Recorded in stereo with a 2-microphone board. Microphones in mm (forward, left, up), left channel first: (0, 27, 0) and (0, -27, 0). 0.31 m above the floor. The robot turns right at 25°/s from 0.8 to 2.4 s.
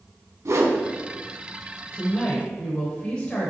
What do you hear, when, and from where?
0.5 s a whoosh: 70° right (ahead or behind), 0.6 m; by 0.8 s 65° right (ahead or behind), 0.6 m
1.9 s a woman speaking: 20° left (ahead or behind), 0.9 m; by 3.5 s 15° left (ahead or behind), 0.9 m